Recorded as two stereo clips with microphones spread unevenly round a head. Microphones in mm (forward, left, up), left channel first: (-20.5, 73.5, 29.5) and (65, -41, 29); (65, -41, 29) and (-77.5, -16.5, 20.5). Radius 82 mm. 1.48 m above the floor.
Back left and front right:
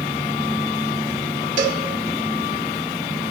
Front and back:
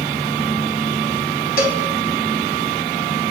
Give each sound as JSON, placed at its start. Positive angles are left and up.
{"t": 1.6, "sound": "a cowbell", "azimuth_deg": -25, "distance_m": 1.9}